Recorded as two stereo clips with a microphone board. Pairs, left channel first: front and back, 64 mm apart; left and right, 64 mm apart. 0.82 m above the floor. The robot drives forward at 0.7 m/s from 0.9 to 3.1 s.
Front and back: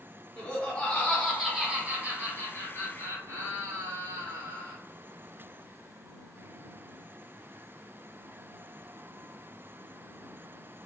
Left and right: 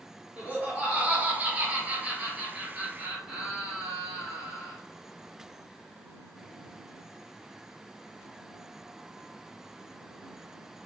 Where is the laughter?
45° right, 1.0 m; by 4.8 s 165° right, 1.6 m.